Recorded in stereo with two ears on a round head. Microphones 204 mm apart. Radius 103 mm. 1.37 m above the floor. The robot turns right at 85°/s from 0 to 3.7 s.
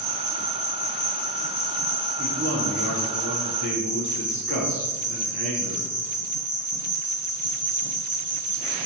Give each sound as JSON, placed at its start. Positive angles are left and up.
{"t": 0.0, "sound": "an insect", "azimuth_deg": -50, "distance_m": 1.2}
{"t": 2.2, "sound": "a man speaking", "azimuth_deg": -165, "distance_m": 1.3}